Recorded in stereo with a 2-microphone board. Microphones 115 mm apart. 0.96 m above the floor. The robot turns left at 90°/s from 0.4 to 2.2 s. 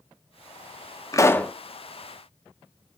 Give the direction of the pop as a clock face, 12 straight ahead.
11 o'clock.